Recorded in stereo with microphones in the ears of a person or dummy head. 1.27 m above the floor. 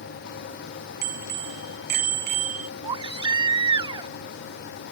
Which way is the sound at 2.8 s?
25° right (ahead or behind).